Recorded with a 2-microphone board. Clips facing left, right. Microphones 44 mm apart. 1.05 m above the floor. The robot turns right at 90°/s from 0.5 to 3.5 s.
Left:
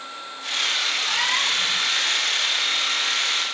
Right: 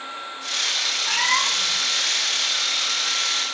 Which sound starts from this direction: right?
A cat meowing, at 1.1 s.